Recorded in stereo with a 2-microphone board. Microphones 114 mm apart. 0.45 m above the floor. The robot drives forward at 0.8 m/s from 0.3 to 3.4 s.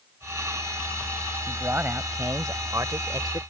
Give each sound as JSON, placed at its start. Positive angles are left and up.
{"t": 1.5, "sound": "a man speaking", "side_deg": -20}